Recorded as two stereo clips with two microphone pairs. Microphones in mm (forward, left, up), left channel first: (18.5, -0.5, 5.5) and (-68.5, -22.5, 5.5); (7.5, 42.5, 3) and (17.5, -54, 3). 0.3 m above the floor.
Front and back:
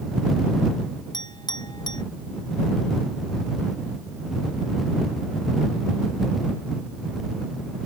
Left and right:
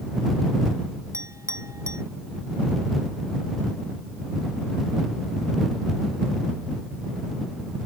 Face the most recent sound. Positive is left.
turn(degrees=-25)